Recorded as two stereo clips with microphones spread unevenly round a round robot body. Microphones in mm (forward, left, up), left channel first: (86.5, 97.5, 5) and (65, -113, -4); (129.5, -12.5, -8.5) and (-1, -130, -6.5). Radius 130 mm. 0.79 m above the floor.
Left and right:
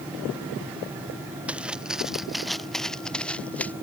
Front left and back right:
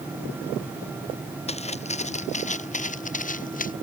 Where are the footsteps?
10° right; by 3.7 s straight ahead.